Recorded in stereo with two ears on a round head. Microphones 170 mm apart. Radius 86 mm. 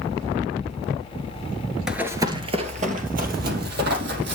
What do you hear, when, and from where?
1.9 s running footsteps: 5° right (ahead or behind), 1.8 m; by 4.3 s 60° right (ahead or behind), 4.5 m